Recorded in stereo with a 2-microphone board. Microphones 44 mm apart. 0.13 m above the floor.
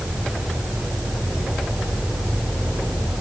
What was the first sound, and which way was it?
Only background noise.